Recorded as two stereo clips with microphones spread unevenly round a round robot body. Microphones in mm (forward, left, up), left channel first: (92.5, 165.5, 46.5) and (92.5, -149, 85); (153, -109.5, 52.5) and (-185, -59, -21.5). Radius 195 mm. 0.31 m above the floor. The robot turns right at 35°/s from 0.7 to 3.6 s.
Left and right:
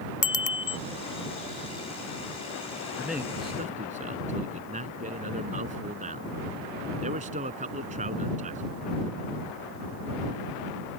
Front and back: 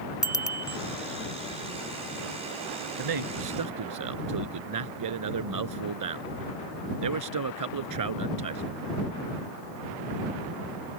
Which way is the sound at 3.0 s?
175° left.